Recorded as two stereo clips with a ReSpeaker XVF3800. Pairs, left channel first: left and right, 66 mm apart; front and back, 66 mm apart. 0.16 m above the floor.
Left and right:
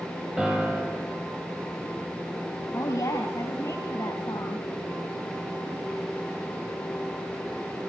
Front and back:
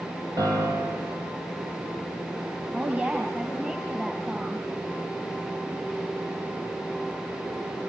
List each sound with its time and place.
0.4 s a piano: 165° right, 4.5 m
2.7 s a woman speaking: 115° left, 3 m